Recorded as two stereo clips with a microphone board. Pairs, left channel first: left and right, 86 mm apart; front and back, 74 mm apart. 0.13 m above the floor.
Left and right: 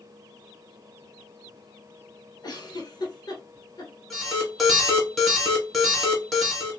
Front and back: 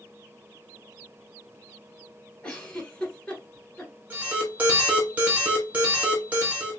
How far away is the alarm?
About 1.3 m.